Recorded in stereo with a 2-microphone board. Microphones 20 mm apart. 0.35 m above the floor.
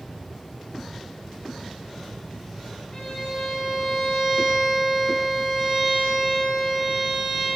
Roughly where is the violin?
Left.